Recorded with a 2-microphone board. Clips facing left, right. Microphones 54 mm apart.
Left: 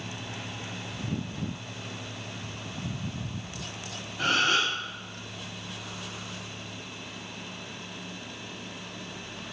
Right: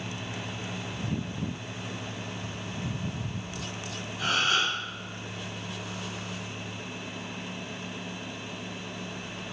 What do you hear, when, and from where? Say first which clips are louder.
4.2 s a gasp: left 1 dB; 45° left (ahead or behind), 1.5 m